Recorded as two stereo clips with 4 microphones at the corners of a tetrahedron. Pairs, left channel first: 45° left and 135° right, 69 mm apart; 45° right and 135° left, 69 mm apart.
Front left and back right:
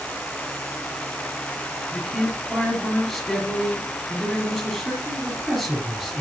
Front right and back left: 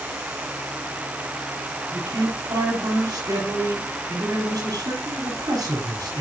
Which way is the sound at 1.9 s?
135° left.